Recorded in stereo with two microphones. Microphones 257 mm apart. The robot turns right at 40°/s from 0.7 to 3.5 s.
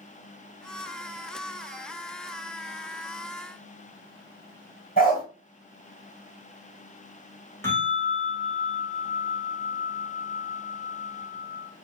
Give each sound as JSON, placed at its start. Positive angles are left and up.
{"t": 5.0, "sound": "a dog barking", "side_deg": 35, "distance_m": 1.4}
{"t": 7.6, "sound": "a bell", "side_deg": 10, "distance_m": 1.3}